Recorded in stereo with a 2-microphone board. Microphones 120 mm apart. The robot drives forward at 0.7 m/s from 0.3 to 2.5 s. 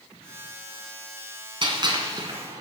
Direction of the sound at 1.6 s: 45° right (ahead or behind).